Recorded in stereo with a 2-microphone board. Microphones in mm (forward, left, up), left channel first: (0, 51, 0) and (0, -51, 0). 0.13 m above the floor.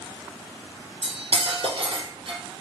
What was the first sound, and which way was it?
Cutlery clinking, 60° right (ahead or behind).